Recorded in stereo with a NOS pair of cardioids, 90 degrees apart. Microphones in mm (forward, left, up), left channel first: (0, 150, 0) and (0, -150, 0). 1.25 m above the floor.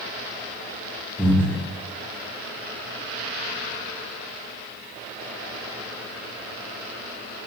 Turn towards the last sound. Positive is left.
turn(degrees=5)